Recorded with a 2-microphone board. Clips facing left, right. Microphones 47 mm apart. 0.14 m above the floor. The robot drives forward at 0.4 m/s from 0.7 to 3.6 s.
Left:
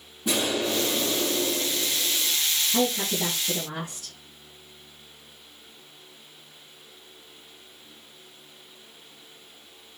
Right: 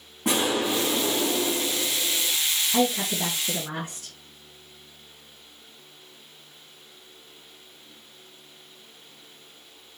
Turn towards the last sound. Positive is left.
turn(degrees=-55)  # may be behind; listen again after turning